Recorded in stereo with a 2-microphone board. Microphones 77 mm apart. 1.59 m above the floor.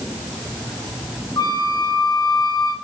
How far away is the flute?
About 1.1 m.